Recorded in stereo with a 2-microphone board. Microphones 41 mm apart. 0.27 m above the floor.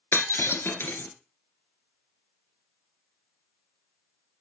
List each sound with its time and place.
0.1 s breaking glass: 75° left (ahead or behind), 2.5 m